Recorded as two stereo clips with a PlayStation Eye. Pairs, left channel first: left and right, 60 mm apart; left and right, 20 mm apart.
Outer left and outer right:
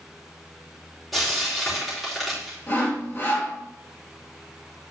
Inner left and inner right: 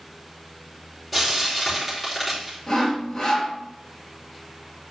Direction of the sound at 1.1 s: Centre (ahead or behind).